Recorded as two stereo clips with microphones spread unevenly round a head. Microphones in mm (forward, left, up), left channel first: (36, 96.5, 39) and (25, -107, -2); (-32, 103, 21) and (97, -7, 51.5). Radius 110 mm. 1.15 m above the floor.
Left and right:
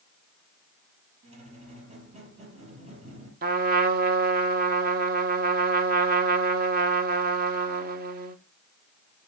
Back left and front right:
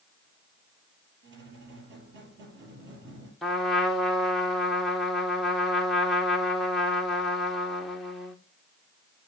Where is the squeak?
30° right, 5 m.